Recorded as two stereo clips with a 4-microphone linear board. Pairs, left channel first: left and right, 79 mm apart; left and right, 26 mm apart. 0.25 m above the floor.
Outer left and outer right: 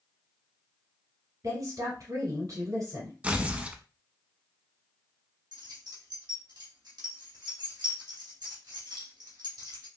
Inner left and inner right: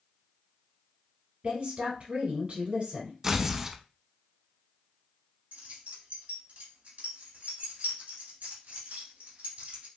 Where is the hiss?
I don't hear a hiss.